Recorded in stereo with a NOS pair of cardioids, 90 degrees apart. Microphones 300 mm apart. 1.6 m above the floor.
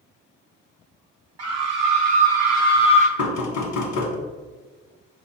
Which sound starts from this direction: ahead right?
A scream, at 1.4 s.